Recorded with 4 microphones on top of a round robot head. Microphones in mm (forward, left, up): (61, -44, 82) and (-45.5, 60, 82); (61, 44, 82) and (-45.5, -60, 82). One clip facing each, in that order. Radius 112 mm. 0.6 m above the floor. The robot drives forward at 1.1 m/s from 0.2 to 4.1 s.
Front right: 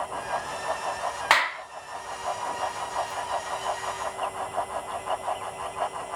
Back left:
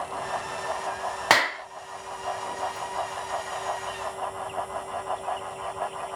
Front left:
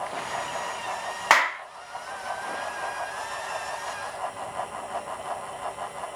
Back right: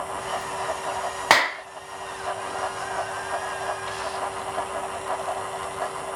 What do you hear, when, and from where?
1.3 s a clap: 175° left